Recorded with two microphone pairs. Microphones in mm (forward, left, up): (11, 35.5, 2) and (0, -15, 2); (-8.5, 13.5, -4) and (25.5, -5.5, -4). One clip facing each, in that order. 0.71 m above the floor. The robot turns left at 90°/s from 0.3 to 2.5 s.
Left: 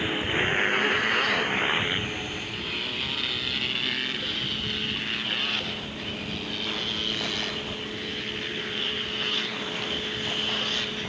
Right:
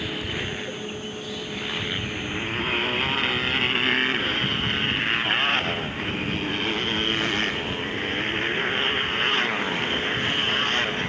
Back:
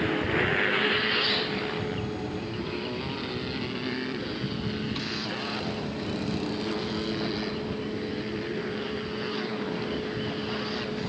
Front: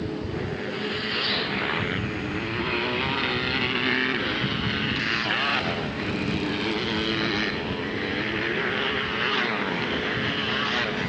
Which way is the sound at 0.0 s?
145° left.